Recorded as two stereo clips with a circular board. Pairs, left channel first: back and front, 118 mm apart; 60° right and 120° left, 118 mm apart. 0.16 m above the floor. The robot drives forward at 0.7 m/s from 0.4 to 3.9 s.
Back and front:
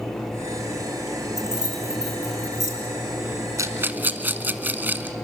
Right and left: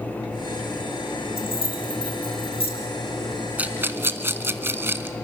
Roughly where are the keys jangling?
Ahead.